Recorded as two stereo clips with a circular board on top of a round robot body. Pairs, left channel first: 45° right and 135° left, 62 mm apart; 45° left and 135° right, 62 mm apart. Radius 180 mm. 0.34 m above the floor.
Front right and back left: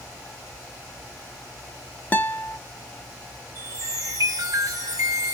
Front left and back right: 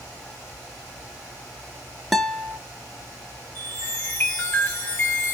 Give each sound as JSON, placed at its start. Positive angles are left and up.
{"t": 2.1, "sound": "a guitar", "azimuth_deg": -45, "distance_m": 1.0}
{"t": 3.5, "sound": "a chime", "azimuth_deg": 105, "distance_m": 2.5}